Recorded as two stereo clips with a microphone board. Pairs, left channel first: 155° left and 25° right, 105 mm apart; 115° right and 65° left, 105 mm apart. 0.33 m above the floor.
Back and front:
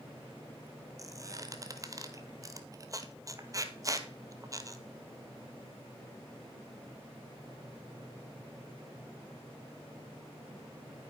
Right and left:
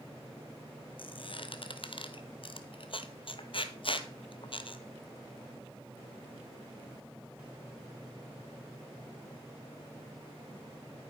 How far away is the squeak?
About 1.1 m.